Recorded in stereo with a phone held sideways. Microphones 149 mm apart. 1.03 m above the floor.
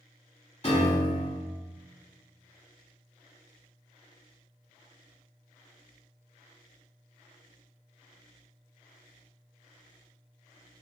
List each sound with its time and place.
0.6 s a piano: 40° left (ahead or behind), 1.1 m